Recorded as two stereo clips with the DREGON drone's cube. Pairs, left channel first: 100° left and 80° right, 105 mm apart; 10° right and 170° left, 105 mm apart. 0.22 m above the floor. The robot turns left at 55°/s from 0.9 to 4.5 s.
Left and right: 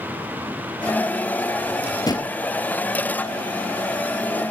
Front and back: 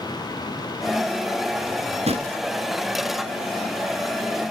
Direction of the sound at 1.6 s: Straight behind.